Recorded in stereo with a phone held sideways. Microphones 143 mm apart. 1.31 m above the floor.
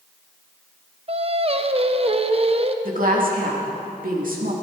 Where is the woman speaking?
80° right, 2.5 m.